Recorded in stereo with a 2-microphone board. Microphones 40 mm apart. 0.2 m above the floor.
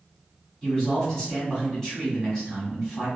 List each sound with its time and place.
0.6 s a man speaking: 15° left (ahead or behind), 1.4 m